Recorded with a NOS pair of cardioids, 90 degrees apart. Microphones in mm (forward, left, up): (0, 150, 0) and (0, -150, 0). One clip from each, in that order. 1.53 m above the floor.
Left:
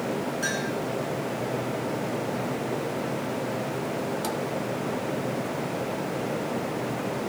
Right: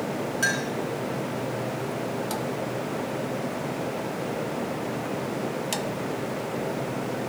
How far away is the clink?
About 8 m.